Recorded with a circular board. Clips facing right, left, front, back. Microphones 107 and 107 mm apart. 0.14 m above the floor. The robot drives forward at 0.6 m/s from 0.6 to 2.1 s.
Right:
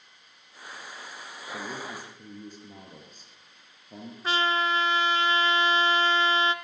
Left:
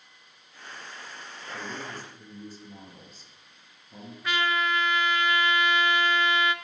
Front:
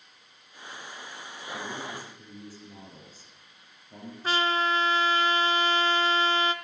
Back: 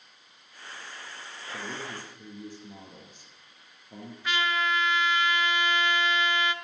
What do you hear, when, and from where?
1.5 s a man speaking: 100° right, 2.5 m; by 4.1 s 110° right, 2.5 m
4.2 s a trumpet: 40° right, 0.5 m